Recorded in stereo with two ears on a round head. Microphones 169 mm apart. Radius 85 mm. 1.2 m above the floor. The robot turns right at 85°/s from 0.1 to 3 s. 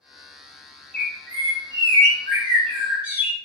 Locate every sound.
0.9 s a bird: 175° left, 0.7 m; by 3.4 s 10° right, 0.7 m